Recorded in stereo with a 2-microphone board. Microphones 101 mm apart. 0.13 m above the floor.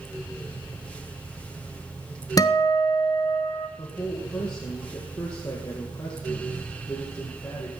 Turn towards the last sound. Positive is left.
turn(degrees=30)  # may be behind; listen again after turning